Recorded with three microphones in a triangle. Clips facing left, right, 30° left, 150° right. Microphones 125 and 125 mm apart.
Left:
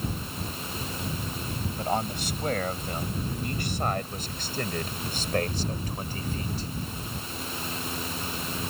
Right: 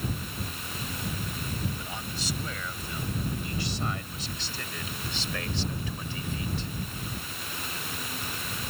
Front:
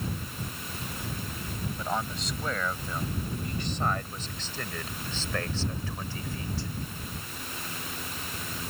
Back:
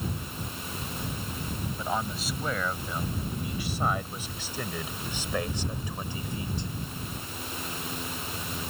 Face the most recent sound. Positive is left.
turn(degrees=140)